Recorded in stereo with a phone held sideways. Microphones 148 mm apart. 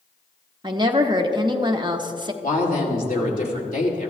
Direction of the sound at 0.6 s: 30° right (ahead or behind).